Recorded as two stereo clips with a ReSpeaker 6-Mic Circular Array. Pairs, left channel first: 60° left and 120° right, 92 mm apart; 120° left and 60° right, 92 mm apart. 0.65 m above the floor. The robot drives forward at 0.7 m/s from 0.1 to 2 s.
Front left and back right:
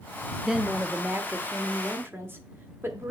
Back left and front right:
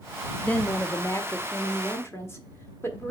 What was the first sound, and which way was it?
A woman speaking, 165° left.